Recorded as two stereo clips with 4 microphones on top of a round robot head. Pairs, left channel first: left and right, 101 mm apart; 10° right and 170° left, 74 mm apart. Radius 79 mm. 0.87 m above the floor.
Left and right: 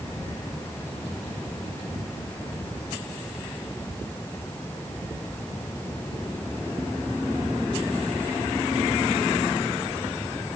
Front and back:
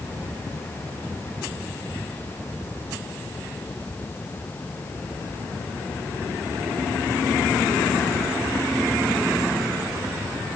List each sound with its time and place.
Only background noise.